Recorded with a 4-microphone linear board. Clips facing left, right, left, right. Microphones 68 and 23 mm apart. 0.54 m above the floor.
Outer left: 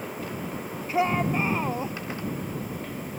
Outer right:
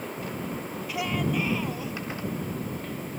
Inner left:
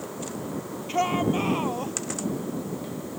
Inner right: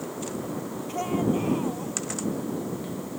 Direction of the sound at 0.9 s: 35° left (ahead or behind).